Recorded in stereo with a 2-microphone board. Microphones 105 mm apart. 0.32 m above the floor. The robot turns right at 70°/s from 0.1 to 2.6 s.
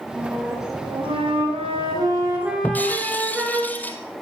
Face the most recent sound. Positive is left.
turn(degrees=15)  # may be behind; listen again after turning